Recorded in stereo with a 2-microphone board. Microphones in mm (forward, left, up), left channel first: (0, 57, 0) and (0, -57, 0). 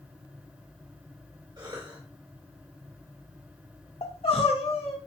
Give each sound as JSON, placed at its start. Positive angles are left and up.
{"t": 1.6, "sound": "a cough", "side_deg": -40, "distance_m": 1.7}
{"t": 4.0, "sound": "crying", "side_deg": 55, "distance_m": 1.4}